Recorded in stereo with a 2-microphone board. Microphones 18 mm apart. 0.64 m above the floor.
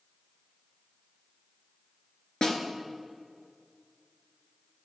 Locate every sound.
2.4 s a snare drum: 45° left (ahead or behind), 1.5 m